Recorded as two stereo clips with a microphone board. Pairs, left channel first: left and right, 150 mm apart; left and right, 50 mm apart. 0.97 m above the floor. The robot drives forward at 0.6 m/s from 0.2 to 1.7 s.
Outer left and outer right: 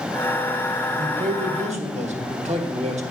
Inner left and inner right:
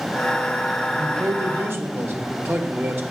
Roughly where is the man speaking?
Right.